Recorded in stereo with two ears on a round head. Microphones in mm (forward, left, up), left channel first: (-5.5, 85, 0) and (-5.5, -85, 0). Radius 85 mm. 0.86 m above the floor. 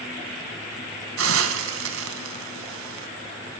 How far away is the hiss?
About 3 m.